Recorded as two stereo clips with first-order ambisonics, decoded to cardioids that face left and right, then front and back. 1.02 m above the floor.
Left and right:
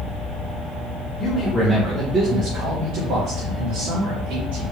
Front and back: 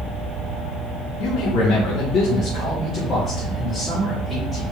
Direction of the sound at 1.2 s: 30° left.